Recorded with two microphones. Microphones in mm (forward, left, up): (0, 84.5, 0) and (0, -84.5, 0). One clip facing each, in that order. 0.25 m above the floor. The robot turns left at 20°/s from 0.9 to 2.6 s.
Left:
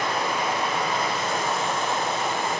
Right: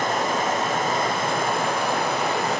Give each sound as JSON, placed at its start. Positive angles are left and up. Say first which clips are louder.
{"t": 0.0, "sound": "running water", "louder": "right 3 dB", "azimuth_deg": -50, "distance_m": 1.4}